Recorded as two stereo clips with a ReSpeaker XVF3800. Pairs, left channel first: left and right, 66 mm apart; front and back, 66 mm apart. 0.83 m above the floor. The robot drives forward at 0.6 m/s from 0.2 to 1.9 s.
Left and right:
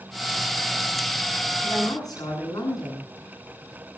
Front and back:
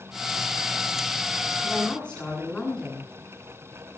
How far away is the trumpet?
No trumpet in this recording.